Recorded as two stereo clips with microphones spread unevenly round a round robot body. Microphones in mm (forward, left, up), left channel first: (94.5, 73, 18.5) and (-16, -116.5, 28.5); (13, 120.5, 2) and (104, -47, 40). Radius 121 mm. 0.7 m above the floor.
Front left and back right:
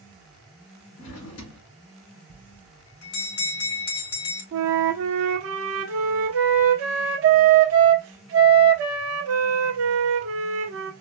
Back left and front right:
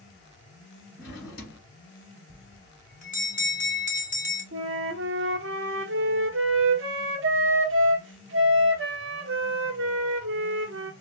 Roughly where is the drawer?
Left.